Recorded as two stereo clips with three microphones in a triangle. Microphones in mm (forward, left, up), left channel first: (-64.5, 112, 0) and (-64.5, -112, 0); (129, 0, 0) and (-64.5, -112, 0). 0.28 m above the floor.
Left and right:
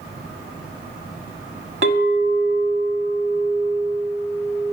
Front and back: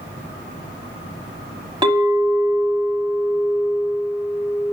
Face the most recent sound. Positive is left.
turn(degrees=-85)